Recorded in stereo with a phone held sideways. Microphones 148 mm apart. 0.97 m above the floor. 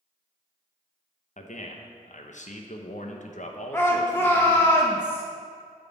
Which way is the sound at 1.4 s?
60° left (ahead or behind).